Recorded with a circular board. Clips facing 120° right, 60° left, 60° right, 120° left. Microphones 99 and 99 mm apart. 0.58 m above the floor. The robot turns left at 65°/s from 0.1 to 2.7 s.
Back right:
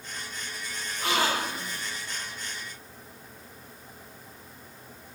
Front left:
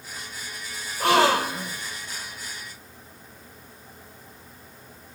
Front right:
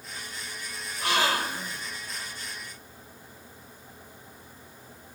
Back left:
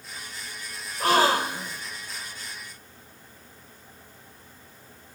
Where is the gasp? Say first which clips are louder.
Front left 8 dB, back left 6 dB; 85° left, 1.2 m; by 1.8 s 30° left, 1.2 m.